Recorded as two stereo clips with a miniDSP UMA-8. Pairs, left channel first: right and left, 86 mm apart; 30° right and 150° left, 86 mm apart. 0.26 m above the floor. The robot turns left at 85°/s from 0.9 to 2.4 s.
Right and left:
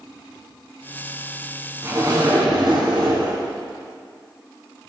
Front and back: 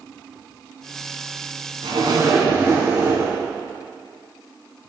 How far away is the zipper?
About 3 m.